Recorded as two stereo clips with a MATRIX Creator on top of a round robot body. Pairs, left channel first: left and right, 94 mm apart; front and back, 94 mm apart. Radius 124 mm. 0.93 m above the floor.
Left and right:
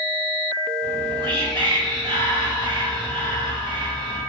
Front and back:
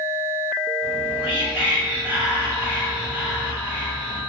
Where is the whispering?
110° right, 1.8 m.